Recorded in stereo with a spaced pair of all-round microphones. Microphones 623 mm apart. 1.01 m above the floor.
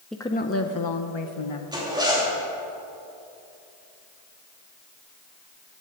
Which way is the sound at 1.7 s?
5° right (ahead or behind).